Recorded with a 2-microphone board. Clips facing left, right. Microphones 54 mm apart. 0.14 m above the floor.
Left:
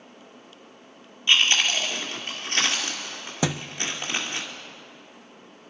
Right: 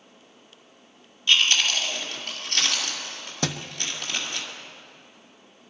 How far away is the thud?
About 0.5 m.